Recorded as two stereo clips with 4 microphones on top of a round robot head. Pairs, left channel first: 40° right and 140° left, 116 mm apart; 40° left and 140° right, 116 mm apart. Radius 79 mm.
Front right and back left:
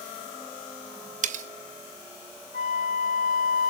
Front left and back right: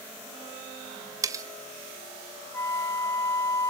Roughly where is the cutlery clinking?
Behind.